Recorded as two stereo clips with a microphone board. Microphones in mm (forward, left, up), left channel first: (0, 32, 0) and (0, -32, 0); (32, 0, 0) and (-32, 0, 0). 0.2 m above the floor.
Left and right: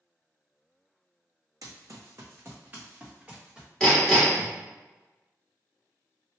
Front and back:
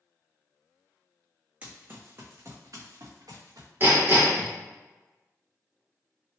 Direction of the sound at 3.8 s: 165° left.